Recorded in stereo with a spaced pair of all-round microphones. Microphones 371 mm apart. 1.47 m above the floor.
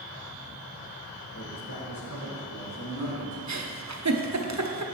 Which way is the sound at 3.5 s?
50° right (ahead or behind).